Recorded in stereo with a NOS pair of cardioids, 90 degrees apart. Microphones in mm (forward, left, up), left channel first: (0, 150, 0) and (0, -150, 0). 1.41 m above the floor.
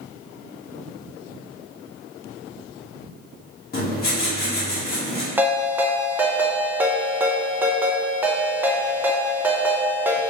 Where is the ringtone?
5° right, 0.9 m.